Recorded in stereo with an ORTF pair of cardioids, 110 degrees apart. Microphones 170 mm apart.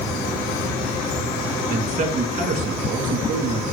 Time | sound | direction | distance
1.7 | a man speaking | 55° right | 2.0 m